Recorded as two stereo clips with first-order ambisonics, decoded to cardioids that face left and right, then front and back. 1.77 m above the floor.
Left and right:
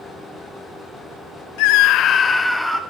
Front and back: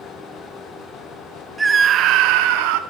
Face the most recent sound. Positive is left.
turn(degrees=180)